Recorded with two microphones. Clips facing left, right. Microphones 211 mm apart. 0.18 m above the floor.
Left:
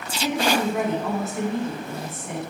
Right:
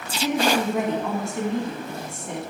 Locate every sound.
0.2 s a woman speaking: 5° left (ahead or behind), 1.2 m